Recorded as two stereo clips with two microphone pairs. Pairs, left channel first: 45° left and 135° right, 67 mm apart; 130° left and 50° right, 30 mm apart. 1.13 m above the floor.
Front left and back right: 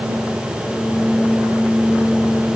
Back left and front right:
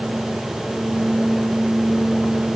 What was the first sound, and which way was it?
Only background noise.